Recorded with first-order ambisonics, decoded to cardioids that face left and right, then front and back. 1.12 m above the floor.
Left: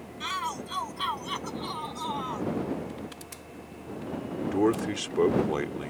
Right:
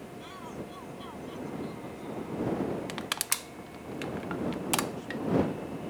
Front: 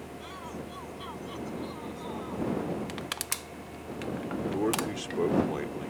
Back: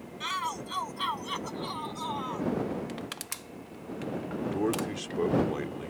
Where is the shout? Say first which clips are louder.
Left 13 dB, back 12 dB; 135° left; by 2.5 s 120° left.